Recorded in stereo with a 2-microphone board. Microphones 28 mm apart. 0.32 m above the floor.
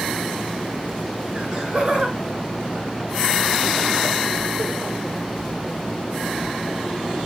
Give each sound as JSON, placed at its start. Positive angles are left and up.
{"t": 1.4, "sound": "laughter", "side_deg": -35, "distance_m": 3.5}